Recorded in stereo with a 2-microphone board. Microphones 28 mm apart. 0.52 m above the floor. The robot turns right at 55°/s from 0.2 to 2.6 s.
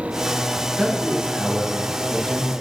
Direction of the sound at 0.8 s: 55° right.